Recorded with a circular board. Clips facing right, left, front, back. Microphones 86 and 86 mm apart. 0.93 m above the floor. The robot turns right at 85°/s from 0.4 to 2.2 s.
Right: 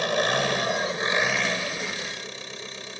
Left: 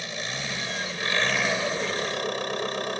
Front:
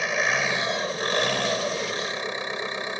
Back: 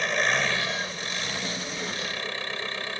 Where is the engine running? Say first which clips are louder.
Right 11 dB, front 1 dB; 85° right; by 3.0 s 70° left.